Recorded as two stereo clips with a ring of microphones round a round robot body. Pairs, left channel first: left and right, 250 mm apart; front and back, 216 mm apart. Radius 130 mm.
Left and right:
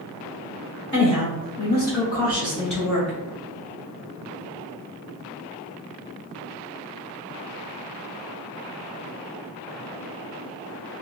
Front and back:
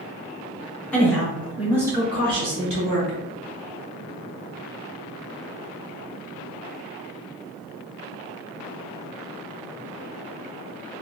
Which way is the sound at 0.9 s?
80° left.